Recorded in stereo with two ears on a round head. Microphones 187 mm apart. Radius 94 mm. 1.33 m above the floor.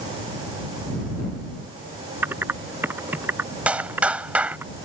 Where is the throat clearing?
I don't hear throat clearing.